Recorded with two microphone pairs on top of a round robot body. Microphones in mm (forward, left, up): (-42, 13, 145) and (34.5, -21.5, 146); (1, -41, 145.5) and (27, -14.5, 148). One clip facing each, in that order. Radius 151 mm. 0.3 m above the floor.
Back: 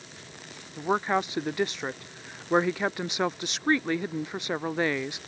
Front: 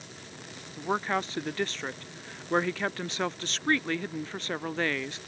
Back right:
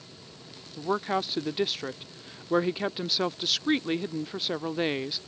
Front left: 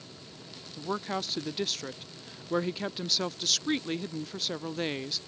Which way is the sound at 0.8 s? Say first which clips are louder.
Back 3 dB, back right 5 dB; 155° right.